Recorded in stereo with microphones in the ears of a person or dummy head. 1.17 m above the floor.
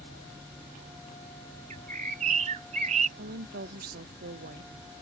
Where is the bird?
40° right (ahead or behind).